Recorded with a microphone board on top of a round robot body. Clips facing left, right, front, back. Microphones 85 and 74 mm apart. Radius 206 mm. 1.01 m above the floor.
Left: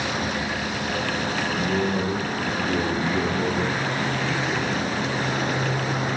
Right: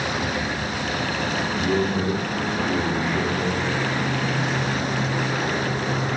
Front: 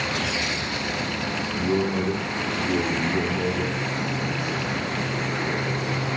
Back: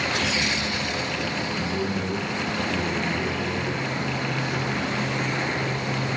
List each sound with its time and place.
1.5 s a man speaking: 20° right, 3.5 m; by 4.9 s 30° left, 6 m